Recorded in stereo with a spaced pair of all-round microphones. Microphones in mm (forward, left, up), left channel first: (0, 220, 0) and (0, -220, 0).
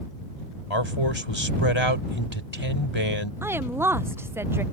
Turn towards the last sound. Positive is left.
turn(degrees=-5)  # may be behind; listen again after turning